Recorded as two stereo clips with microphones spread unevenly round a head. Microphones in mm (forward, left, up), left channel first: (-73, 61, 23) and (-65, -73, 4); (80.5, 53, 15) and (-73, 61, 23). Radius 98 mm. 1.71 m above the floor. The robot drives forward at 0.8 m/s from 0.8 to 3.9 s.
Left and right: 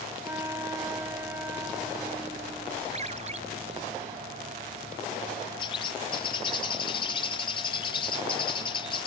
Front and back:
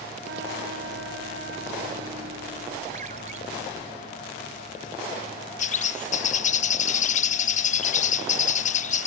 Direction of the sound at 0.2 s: 160° right.